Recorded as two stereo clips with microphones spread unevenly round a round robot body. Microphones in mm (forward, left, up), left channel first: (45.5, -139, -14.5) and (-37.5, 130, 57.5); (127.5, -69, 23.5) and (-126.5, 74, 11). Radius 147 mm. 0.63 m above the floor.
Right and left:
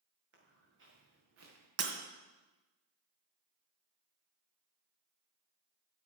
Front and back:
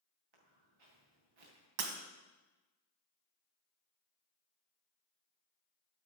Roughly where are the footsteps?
Behind.